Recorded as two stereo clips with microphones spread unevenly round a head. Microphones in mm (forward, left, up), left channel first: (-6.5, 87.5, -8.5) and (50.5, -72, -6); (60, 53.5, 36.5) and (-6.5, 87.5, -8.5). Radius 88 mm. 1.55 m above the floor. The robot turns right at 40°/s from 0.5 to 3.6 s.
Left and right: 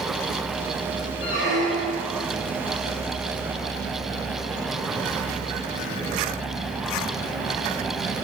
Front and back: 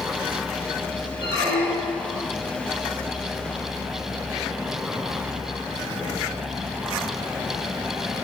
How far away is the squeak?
About 2 m.